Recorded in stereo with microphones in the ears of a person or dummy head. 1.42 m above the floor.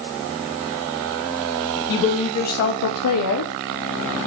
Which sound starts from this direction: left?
A woman speaking, at 1.9 s.